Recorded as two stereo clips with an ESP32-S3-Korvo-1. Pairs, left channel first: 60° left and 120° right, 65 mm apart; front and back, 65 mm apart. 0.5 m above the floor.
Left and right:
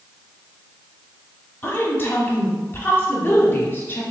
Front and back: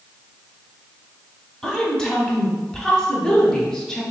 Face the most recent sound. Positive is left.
turn(degrees=75)